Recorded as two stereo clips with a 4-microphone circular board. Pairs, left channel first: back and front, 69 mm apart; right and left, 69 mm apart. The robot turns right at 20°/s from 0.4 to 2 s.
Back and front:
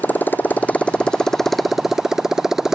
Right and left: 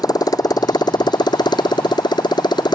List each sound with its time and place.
0.0 s a motorcycle: 115° right; by 2.8 s 85° right